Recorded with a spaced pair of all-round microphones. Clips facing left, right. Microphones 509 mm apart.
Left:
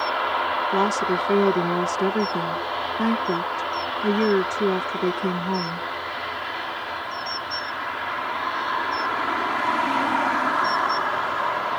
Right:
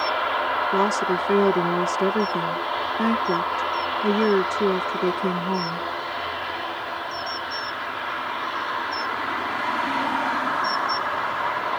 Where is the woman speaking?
Centre (ahead or behind).